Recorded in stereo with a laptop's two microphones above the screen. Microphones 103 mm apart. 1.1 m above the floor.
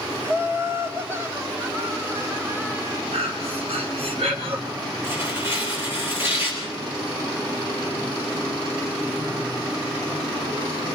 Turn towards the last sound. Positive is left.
turn(degrees=-25)  # may be behind; listen again after turning